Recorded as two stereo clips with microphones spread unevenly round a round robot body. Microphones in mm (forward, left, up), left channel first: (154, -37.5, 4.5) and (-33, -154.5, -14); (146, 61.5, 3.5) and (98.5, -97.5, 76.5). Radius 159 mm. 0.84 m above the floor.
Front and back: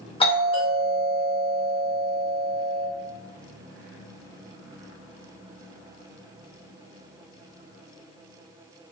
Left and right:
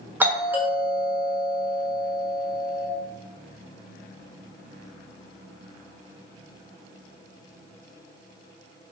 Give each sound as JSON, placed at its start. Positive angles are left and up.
{"t": 0.2, "sound": "a doorbell", "azimuth_deg": 30, "distance_m": 0.8}